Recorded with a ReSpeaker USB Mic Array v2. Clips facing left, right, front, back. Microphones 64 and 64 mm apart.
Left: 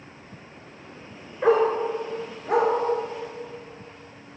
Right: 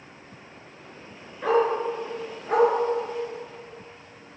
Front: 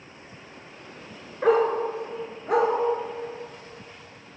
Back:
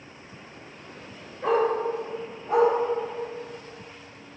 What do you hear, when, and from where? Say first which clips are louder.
1.4 s a dog barking: left 2 dB, front 2 dB; 25° left, 1.3 m; by 4.4 s 30° right, 2 m